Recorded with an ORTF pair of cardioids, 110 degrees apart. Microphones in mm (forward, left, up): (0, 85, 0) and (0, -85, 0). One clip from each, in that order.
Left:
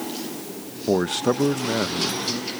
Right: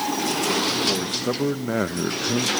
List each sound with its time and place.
0.9 s a man speaking: 45° left, 0.9 m; by 2.5 s 45° right, 0.9 m